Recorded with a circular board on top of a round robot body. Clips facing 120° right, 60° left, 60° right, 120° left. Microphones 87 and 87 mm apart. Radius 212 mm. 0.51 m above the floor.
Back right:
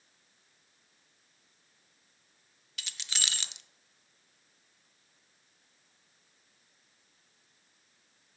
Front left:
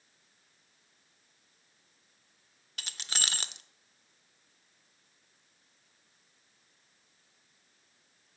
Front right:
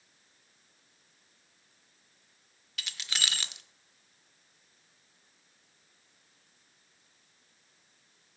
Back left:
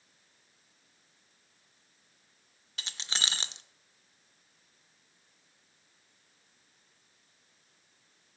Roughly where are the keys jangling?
Left.